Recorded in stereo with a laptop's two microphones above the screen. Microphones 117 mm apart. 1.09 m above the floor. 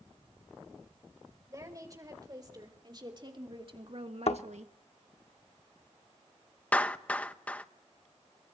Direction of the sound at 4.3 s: 60° left (ahead or behind).